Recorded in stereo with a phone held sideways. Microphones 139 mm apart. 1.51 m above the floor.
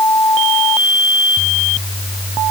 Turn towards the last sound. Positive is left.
No sound to turn to.